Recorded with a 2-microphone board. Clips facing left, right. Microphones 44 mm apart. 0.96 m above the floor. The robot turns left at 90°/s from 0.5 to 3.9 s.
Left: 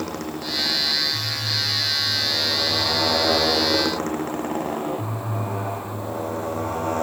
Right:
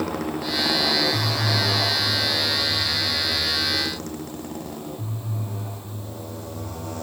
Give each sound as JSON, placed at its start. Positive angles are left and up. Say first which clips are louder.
{"t": 0.0, "sound": "a motorcycle", "louder": "right 3 dB", "azimuth_deg": -10}